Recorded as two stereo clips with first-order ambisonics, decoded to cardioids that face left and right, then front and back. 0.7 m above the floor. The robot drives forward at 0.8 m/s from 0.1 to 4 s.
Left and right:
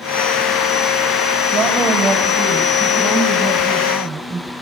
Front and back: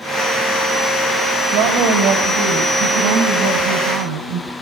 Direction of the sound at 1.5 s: 160° right.